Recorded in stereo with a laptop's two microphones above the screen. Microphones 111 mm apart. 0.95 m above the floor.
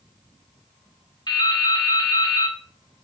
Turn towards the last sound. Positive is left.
turn(degrees=40)  # may be behind; listen again after turning